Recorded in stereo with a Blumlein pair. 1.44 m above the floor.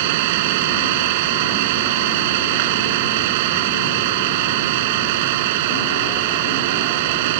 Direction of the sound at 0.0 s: 50° right.